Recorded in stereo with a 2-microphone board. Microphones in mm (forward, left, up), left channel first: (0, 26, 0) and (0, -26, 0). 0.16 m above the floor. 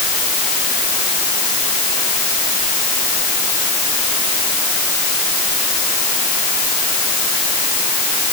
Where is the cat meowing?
No cat meowing in this recording.